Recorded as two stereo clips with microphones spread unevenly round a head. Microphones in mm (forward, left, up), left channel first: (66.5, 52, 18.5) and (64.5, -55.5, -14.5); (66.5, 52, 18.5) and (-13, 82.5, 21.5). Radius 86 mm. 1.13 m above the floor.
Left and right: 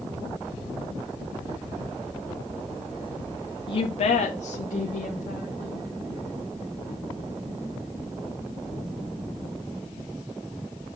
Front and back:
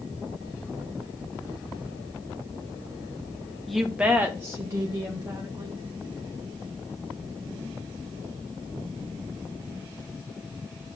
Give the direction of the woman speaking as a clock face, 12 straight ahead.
10 o'clock.